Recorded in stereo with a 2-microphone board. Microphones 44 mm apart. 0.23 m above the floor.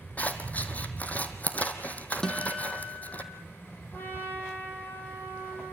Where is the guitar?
15° left (ahead or behind), 1.7 m.